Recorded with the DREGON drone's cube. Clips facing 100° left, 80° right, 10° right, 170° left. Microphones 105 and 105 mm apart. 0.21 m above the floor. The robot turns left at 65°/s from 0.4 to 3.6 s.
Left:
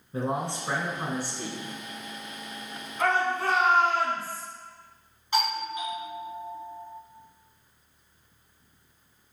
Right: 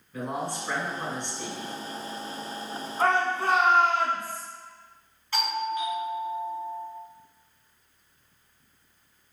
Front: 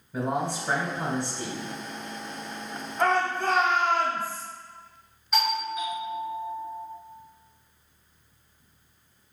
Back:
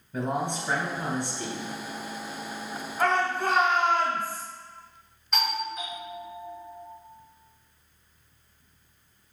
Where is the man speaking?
75° left, 1.1 m; by 1.8 s 10° right, 1.1 m.